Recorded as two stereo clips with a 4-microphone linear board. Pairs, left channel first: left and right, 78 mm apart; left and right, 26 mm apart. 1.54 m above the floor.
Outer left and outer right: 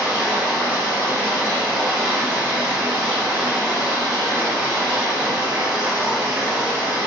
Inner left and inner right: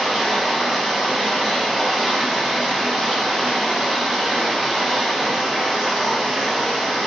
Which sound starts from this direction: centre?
Running water, at 0.0 s.